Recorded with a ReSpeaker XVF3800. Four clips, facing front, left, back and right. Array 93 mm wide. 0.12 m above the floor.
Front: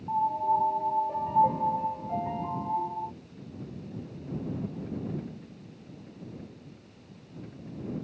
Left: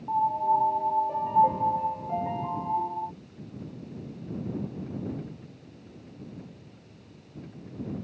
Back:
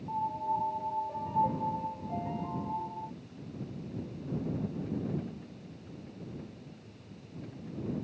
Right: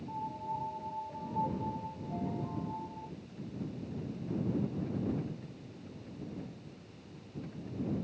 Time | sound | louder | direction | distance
0.1 | a piano | left 16 dB, front 7 dB | 60° left | ?